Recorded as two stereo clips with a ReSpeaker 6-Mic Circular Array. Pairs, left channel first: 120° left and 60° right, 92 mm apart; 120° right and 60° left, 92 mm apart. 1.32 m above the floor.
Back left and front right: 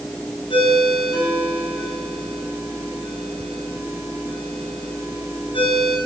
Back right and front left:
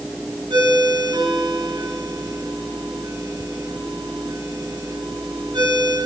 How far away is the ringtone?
About 9.5 m.